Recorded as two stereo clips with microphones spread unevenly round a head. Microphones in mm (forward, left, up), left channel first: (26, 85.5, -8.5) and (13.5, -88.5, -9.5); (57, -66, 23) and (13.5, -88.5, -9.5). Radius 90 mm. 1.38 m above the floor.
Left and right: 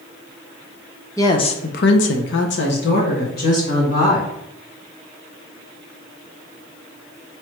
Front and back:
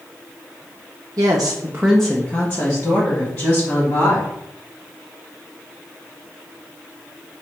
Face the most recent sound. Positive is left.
turn(degrees=45)